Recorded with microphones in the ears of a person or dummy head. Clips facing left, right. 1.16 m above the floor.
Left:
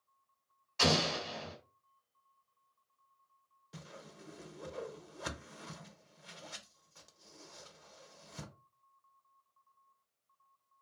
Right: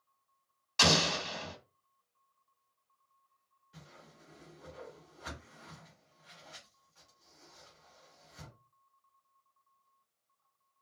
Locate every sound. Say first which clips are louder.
0.8 s an explosion: right 1 dB; 80° right, 1.4 m
3.7 s a whoosh: left 5 dB; 75° left (ahead or behind), 0.7 m